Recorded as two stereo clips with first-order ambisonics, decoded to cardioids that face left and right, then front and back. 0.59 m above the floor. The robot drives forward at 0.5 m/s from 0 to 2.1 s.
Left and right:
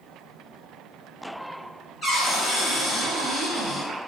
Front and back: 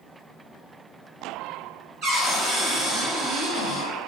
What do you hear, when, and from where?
2.0 s a cupboard door: 160° left, 1.9 m